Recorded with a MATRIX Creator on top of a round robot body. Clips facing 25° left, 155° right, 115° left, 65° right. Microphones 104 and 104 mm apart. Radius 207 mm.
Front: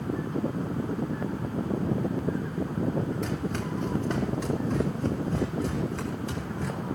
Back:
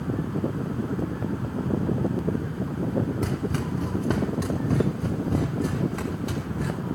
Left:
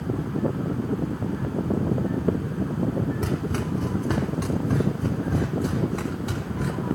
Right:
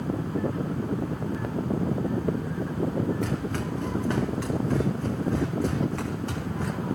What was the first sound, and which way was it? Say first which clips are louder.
Running footsteps: back 3 dB, left 2 dB; 175° left.